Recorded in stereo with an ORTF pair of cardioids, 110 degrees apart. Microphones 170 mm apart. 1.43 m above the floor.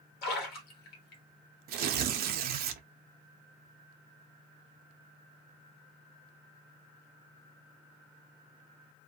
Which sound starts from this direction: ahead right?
Tearing paper, at 1.7 s.